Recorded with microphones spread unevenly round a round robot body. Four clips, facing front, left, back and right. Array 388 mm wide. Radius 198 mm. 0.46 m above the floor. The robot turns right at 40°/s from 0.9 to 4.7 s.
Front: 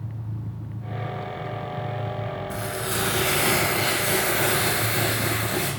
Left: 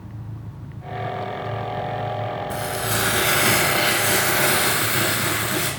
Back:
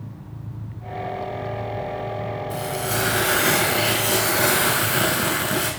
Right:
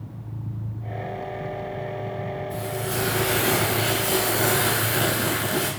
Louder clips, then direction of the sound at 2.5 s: Left 3 dB, back 3 dB; 80° left.